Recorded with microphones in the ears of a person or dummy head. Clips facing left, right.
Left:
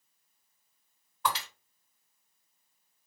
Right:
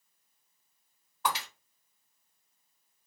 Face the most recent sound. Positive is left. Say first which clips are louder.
# even
turn(degrees=-30)  # may be behind; listen again after turning